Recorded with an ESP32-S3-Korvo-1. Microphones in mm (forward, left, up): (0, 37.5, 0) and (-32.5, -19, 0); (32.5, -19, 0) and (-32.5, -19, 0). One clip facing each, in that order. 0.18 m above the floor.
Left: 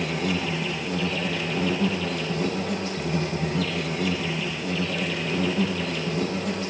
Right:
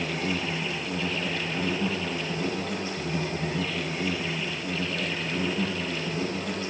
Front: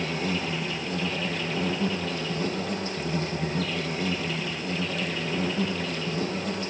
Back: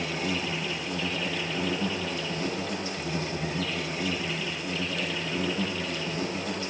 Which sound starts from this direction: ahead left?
An insect, at 0.0 s.